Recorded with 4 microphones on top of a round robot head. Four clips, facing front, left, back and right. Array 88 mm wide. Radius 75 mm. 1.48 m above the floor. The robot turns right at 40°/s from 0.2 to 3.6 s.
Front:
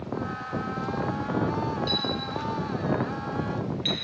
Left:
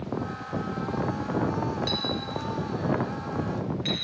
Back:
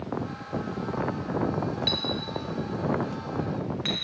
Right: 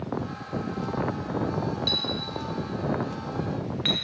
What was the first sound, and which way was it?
A clink, 165° left.